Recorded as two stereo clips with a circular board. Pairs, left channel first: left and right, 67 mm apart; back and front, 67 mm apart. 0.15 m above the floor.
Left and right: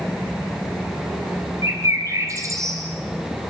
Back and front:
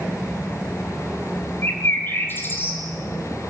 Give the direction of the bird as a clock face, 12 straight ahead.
4 o'clock.